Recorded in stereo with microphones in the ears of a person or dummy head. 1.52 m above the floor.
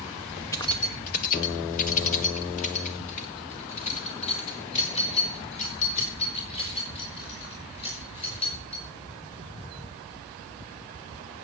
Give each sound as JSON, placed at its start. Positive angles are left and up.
{"t": 0.5, "sound": "keys jangling", "side_deg": 15, "distance_m": 0.6}